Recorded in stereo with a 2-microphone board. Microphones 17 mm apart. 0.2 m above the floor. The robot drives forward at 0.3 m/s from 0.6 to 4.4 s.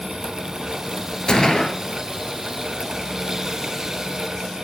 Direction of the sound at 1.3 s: 50° left (ahead or behind).